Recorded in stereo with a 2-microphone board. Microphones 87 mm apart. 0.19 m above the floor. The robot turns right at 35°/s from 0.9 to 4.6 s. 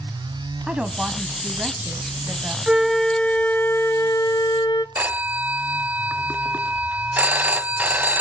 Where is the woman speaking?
10° right (ahead or behind), 1.1 m; by 2.6 s 20° right (ahead or behind), 1.1 m.